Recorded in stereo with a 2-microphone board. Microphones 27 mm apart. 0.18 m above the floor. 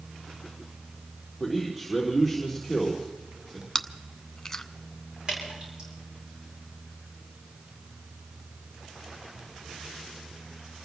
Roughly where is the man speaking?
Centre.